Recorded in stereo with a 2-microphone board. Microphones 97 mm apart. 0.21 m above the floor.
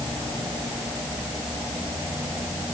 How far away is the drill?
I don't hear a drill.